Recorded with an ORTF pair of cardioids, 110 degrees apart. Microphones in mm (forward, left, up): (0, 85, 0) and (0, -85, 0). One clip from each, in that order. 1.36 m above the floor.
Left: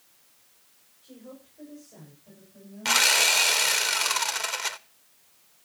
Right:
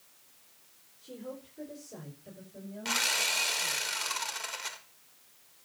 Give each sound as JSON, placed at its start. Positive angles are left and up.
{"t": 1.0, "sound": "a woman speaking", "azimuth_deg": -60, "distance_m": 5.5}
{"t": 2.9, "sound": "sawing", "azimuth_deg": 45, "distance_m": 0.8}